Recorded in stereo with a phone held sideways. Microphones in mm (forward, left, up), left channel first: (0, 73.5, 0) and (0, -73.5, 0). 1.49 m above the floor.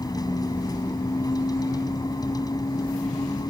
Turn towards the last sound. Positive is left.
turn(degrees=25)  # may be behind; listen again after turning